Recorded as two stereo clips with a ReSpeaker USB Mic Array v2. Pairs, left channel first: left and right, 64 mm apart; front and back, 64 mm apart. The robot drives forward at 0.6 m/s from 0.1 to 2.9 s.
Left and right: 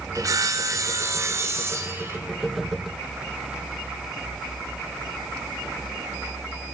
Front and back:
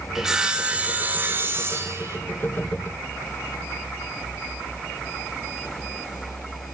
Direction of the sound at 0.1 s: 95° right.